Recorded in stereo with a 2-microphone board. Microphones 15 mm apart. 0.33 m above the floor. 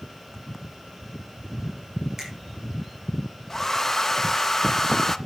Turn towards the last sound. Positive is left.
turn(degrees=20)  # may be behind; listen again after turning